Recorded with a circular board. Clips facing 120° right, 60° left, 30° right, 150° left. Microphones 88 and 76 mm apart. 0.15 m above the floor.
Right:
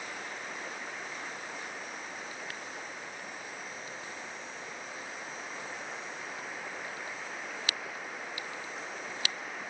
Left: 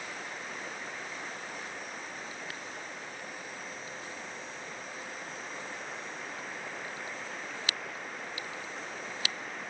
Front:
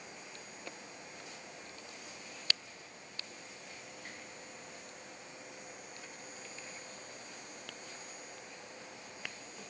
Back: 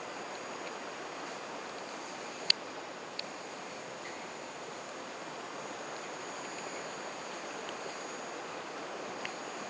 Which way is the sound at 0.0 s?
155° left.